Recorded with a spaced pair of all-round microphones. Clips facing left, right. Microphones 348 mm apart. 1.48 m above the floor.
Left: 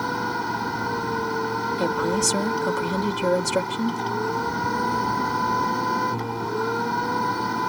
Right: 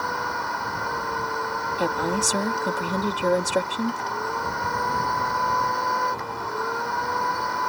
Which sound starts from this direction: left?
A machine running, at 0.0 s.